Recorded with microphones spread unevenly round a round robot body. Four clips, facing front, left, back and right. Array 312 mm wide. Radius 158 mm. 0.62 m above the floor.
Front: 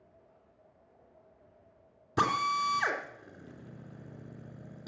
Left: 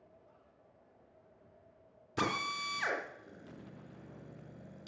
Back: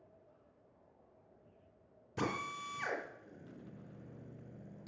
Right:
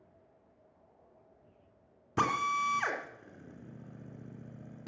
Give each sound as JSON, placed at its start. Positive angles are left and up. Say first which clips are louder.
{"t": 2.2, "sound": "a drill", "louder": "right 6 dB, front 11 dB", "azimuth_deg": -40, "distance_m": 3.0}